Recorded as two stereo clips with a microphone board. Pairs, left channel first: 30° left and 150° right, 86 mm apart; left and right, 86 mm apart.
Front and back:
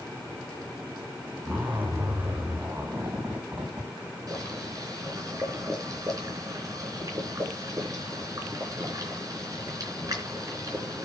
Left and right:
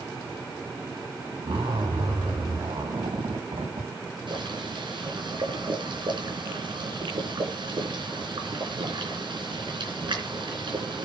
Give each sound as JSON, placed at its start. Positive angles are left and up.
{"t": 1.4, "sound": "a zipper", "azimuth_deg": -85, "distance_m": 6.5}
{"t": 4.3, "sound": "boiling", "azimuth_deg": -105, "distance_m": 4.0}